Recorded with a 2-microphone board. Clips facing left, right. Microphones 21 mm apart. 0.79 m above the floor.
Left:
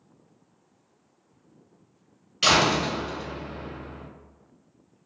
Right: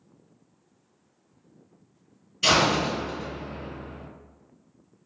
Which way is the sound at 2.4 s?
60° left (ahead or behind).